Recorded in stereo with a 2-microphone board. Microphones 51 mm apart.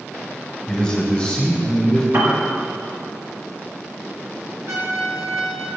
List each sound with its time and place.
0.7 s a man speaking: 15° left (ahead or behind), 1.1 m; by 2.0 s 20° left (ahead or behind), 1.5 m
2.1 s a piano: 55° right (ahead or behind), 1.0 m
4.7 s a trumpet: 70° right (ahead or behind), 1.9 m